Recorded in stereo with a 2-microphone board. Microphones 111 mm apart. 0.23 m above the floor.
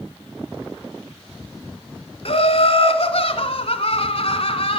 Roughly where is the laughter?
Left.